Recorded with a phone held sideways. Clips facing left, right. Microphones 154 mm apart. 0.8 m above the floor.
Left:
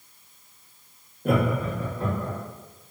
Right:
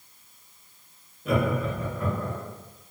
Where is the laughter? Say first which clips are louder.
Left 1 dB; 55° left (ahead or behind), 0.6 m; by 2.4 s 20° left (ahead or behind), 1.0 m.